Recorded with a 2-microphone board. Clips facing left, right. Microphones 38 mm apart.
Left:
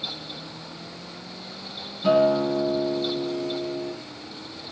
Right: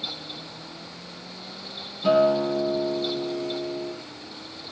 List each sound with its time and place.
2.0 s a guitar: 5° right (ahead or behind), 2.5 m